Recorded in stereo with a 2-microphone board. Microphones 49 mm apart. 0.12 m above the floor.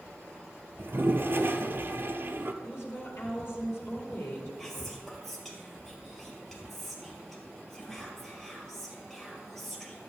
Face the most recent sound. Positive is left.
turn(degrees=5)  # may be behind; listen again after turning